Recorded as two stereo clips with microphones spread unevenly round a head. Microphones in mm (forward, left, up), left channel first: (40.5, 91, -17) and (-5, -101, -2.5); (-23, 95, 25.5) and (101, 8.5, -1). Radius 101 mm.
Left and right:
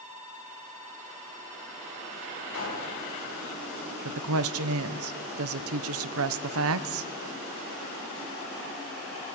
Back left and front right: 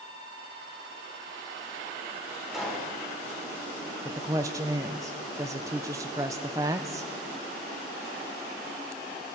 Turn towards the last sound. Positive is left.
turn(degrees=-115)